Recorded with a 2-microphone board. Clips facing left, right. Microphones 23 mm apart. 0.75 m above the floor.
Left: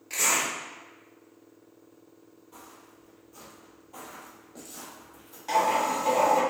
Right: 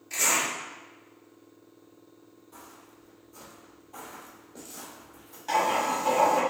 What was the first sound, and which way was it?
A zipper, 45° left (ahead or behind).